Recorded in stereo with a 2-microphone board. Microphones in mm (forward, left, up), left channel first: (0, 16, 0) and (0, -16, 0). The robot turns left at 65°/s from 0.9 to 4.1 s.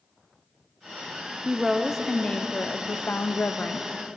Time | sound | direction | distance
1.4 | a woman speaking | 155° right | 0.6 m